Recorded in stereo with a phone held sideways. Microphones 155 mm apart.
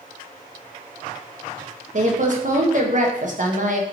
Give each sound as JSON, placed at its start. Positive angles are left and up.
{"t": 1.9, "sound": "a woman speaking", "side_deg": -60, "distance_m": 0.7}